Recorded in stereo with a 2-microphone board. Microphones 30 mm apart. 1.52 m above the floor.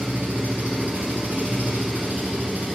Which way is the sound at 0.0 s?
75° right (ahead or behind).